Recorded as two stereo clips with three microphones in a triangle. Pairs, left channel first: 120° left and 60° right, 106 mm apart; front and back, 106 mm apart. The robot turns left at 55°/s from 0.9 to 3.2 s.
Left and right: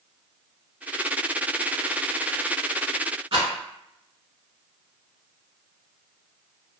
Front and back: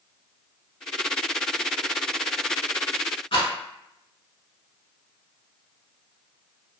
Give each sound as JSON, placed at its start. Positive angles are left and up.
{"t": 3.3, "sound": "a rattle", "azimuth_deg": -30, "distance_m": 0.7}